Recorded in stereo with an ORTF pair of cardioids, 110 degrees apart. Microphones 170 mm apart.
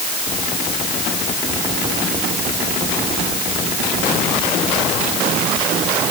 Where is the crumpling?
I don't hear crumpling.